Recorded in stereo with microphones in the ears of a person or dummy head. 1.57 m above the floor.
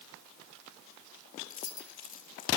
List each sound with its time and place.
1.5 s keys jangling: 40° left (ahead or behind), 2.5 m